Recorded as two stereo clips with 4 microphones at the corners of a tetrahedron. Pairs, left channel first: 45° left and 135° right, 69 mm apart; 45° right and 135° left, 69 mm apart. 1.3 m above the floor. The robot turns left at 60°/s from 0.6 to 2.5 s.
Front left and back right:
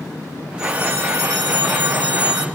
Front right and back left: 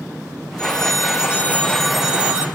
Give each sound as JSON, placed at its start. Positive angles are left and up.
{"t": 0.6, "sound": "a phone ringing", "azimuth_deg": -55, "distance_m": 1.9}